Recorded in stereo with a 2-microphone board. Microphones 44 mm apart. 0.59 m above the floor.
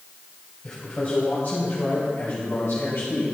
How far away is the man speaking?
About 3 m.